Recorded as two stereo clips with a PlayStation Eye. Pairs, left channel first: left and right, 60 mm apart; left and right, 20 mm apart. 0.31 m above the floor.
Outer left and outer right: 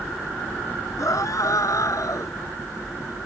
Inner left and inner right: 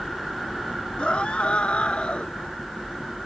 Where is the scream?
65° left (ahead or behind).